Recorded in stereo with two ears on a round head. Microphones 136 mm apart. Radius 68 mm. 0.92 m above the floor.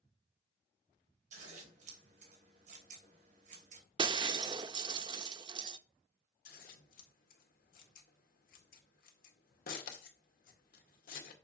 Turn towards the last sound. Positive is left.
turn(degrees=65)  # may be behind; listen again after turning